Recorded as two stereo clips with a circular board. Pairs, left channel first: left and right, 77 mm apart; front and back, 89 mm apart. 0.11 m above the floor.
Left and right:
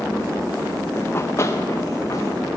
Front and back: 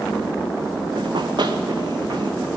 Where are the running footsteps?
150° left, 1.0 m; by 2.5 s 140° left, 3 m.